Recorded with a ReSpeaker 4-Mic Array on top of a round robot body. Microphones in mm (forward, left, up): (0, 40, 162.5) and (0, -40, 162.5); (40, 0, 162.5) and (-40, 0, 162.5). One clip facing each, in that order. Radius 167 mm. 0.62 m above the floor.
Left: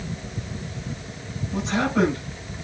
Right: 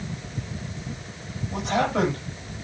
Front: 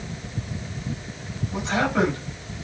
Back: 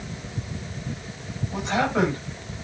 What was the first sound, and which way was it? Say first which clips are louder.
A man speaking: even, even; 110° right.